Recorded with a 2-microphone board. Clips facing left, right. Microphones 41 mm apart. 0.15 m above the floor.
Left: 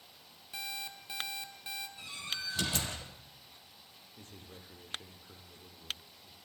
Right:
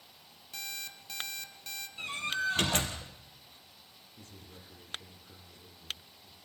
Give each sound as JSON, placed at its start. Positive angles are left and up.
{"t": 0.5, "sound": "an alarm clock", "side_deg": 15, "distance_m": 2.0}
{"t": 2.0, "sound": "a door slam", "side_deg": -55, "distance_m": 3.5}
{"t": 4.2, "sound": "a man speaking", "side_deg": 35, "distance_m": 5.5}